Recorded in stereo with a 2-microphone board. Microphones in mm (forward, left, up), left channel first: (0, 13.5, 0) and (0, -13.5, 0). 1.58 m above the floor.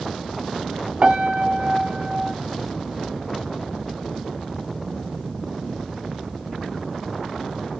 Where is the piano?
45° right (ahead or behind), 0.9 m.